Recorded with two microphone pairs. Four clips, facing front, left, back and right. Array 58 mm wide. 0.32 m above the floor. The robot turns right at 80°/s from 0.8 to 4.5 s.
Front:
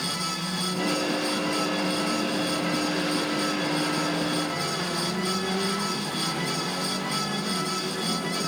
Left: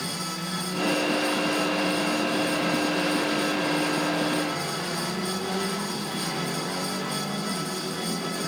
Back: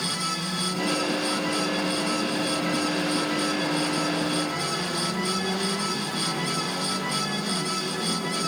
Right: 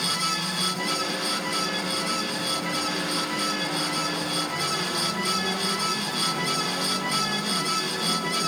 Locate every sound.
Only background noise.